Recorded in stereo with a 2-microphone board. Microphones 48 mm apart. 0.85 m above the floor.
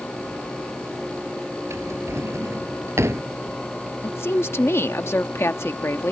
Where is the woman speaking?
60° left (ahead or behind).